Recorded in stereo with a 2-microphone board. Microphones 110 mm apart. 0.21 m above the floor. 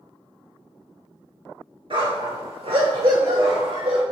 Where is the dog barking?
55° right (ahead or behind), 1.1 m; by 4.0 s 65° right (ahead or behind), 2 m.